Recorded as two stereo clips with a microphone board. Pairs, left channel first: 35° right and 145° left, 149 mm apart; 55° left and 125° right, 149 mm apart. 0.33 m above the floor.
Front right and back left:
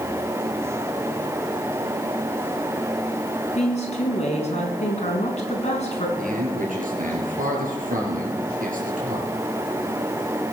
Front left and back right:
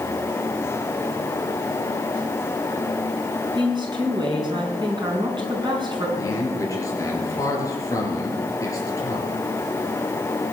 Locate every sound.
3.5 s a woman speaking: 70° right, 3.5 m
6.2 s a man speaking: 125° left, 4.5 m